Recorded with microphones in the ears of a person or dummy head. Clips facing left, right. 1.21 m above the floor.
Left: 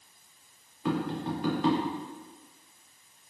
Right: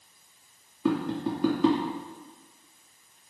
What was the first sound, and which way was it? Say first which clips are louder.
Tapping: right 3 dB; 75° right (ahead or behind).